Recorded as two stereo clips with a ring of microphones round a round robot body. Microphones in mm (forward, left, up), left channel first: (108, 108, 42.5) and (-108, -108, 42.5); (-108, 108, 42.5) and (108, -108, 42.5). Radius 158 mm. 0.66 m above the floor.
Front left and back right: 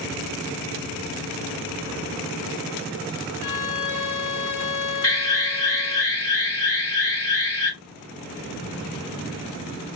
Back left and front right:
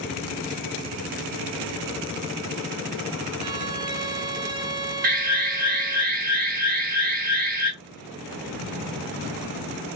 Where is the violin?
30° left, 1.3 m.